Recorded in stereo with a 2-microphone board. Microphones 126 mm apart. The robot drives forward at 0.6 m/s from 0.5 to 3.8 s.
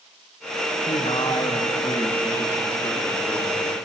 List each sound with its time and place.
0.9 s a man speaking: 60° left (ahead or behind), 0.7 m; by 3.7 s 15° left (ahead or behind), 2 m